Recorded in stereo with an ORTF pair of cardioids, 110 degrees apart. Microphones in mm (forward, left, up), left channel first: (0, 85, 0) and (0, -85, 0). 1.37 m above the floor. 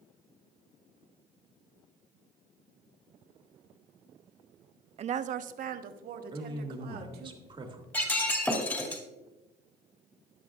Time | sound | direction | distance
5.0 | a woman speaking | 40° right | 0.5 m
6.3 | a man speaking | 30° right | 1.8 m
7.9 | breaking glass | 15° left | 2 m